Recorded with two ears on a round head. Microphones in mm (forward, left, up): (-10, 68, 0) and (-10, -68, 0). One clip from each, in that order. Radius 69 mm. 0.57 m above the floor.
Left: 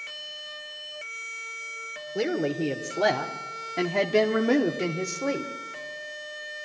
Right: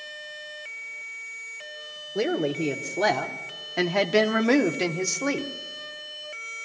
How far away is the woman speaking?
About 2.0 m.